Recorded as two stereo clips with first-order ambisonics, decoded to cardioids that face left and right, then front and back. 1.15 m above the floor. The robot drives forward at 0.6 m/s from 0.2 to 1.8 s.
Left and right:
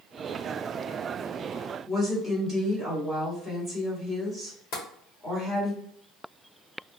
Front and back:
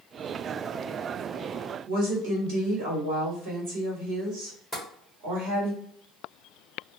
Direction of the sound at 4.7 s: 100° left.